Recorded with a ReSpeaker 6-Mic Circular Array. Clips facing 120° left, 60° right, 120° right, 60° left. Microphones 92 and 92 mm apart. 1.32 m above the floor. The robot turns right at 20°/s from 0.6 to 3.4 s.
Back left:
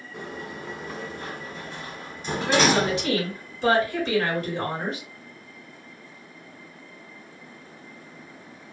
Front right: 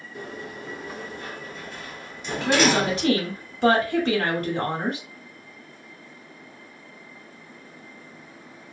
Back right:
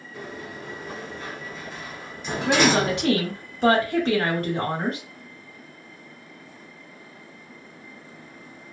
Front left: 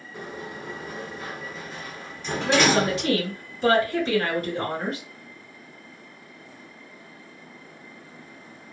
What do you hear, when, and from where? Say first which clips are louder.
0.1 s a sliding door: even, front left 1 dB; 135° left, 1.2 m; by 3.1 s 175° right, 1.2 m
2.5 s a woman speaking: front right 1 dB, back right 1 dB; 110° right, 1.7 m; by 5.0 s 95° right, 1.7 m